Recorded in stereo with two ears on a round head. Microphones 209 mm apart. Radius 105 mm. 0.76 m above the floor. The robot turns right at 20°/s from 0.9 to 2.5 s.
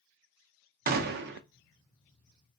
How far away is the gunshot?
About 0.6 m.